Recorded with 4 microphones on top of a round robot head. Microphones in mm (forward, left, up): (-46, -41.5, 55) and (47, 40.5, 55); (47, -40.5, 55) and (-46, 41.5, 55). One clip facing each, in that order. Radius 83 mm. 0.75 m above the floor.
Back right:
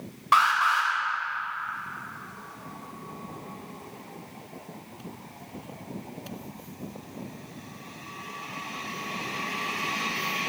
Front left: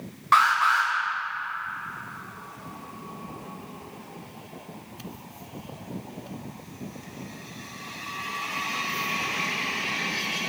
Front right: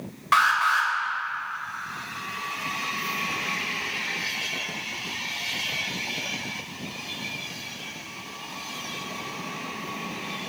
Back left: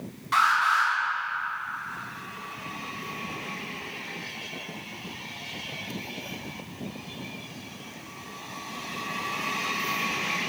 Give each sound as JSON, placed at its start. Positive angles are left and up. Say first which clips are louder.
{"t": 0.3, "sound": "an alarm", "louder": "front left 1 dB, front right 1 dB", "azimuth_deg": -60, "distance_m": 3.5}